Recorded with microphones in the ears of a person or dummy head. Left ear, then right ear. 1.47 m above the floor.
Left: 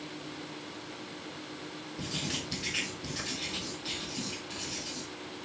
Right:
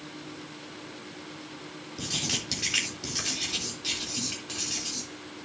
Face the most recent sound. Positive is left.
turn(degrees=-55)  # may be behind; listen again after turning